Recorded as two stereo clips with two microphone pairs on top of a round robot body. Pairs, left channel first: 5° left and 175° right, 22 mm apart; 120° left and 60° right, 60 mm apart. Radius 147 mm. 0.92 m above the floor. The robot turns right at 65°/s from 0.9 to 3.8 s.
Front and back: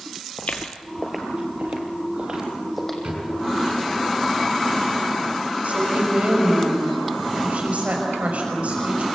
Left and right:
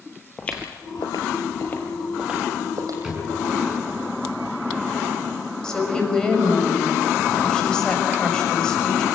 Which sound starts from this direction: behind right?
A drawer, at 3.0 s.